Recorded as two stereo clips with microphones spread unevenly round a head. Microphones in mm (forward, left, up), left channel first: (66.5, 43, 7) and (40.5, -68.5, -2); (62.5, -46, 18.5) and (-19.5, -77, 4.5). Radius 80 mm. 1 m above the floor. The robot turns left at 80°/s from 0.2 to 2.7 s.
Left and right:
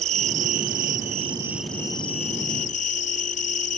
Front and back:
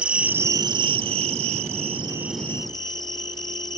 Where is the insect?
80° right; by 3.8 s 80° left.